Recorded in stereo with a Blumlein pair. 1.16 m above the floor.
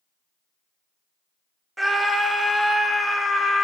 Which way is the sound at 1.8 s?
5° right.